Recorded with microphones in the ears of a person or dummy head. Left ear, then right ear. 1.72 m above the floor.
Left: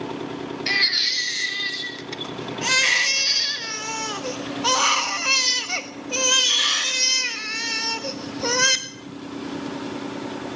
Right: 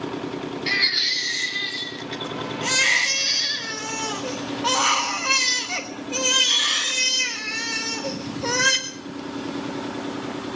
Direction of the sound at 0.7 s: 15° left (ahead or behind).